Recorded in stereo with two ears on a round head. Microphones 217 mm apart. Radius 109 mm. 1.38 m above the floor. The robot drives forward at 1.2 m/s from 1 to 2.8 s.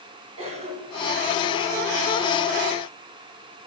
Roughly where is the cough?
Right.